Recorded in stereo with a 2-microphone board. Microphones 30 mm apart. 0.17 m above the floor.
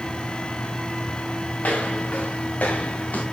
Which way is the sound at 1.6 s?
65° left (ahead or behind).